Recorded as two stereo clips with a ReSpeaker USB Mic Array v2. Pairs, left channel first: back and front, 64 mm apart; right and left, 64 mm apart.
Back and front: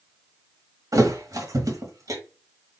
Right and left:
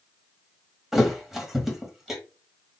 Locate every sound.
0.9 s a thud: 5° left, 1.2 m